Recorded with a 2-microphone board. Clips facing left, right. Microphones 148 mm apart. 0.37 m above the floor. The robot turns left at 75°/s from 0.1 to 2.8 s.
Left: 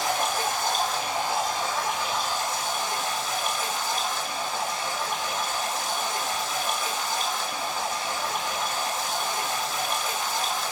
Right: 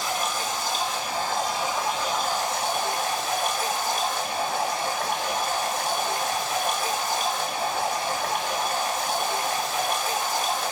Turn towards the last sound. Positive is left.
turn(degrees=-100)